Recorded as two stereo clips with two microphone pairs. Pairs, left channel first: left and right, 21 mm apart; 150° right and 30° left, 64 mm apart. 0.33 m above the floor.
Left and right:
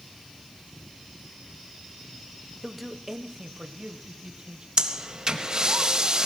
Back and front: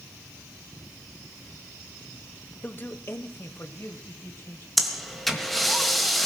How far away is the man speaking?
About 0.9 m.